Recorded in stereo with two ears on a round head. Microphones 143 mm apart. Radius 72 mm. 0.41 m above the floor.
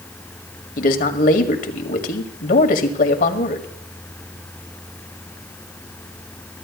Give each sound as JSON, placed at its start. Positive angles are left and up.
{"t": 0.8, "sound": "a man speaking", "side_deg": 55, "distance_m": 1.7}